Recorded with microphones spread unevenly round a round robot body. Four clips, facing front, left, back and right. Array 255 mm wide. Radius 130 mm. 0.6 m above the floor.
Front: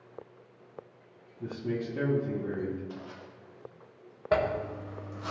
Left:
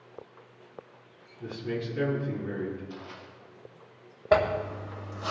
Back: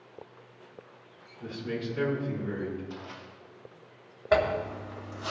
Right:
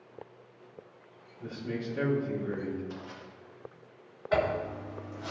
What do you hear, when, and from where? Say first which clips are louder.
1.4 s a man speaking: left 3 dB, front 1 dB; 15° left, 5.5 m
2.9 s crushing: even, back 1 dB; 30° right, 4 m
4.3 s a zipper: left 4 dB, back 2 dB; 75° left, 2.5 m